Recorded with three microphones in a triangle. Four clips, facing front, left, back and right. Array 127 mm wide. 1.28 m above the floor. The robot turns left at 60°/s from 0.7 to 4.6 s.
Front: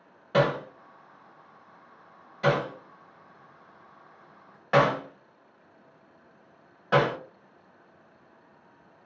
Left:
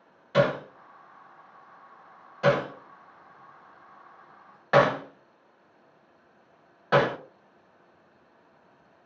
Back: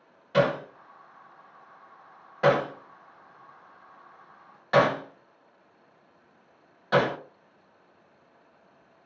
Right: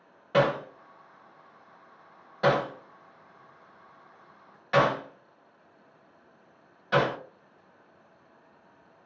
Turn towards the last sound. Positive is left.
turn(degrees=70)